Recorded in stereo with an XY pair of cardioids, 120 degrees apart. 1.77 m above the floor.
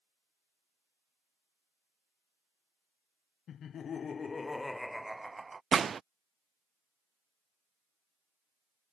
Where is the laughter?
55° left; by 5.6 s 25° right.